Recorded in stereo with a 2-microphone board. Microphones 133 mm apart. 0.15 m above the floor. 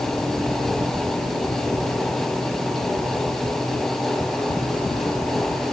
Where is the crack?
No crack in this recording.